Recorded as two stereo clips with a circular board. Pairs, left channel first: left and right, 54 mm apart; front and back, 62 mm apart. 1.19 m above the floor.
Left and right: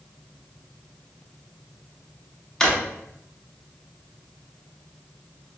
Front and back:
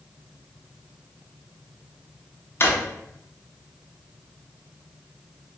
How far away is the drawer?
About 0.5 m.